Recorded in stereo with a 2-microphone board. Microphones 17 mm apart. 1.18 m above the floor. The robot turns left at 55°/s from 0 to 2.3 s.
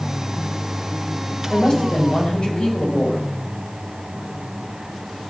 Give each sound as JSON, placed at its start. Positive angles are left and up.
{"t": 1.5, "sound": "a woman speaking", "azimuth_deg": 120, "distance_m": 5.5}